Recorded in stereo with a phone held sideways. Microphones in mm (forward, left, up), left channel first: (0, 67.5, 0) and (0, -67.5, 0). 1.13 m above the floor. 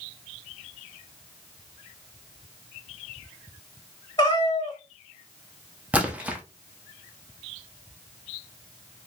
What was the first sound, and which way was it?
A cat meowing, 35° left (ahead or behind).